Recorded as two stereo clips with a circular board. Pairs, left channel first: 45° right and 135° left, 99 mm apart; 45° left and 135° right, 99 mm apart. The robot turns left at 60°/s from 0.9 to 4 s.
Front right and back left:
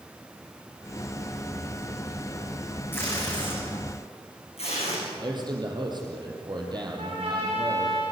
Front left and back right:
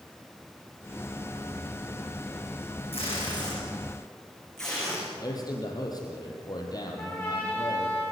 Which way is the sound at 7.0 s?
120° left.